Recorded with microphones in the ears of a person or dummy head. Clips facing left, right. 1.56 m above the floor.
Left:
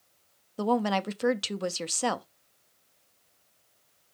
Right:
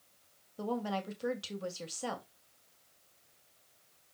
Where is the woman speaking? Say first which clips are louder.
Left 9 dB; 70° left (ahead or behind), 0.6 m.